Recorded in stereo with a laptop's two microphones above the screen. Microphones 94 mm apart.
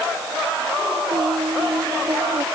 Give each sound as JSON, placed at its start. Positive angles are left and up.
{"t": 1.1, "sound": "singing", "side_deg": -55}